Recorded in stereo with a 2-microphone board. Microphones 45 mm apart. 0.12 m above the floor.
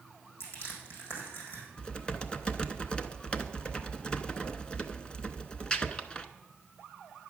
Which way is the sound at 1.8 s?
20° left (ahead or behind).